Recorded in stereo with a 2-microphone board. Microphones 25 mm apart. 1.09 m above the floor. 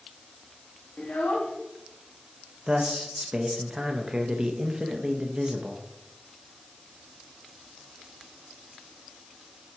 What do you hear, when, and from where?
1.0 s a child speaking: 75° left (ahead or behind), 1.0 m
2.7 s a man speaking: 25° right (ahead or behind), 0.7 m